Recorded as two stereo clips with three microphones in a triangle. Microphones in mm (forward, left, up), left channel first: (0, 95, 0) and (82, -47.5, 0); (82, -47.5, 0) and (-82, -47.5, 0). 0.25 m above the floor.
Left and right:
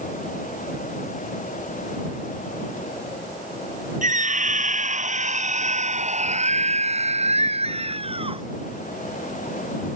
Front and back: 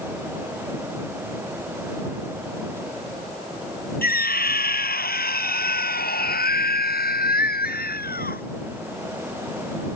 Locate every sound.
4.0 s a scream: 20° right; by 8.4 s 5° right